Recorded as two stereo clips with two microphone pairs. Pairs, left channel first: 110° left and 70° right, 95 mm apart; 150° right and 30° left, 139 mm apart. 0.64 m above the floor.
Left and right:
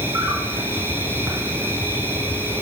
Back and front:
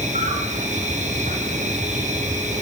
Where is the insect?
5° right, 9.5 m.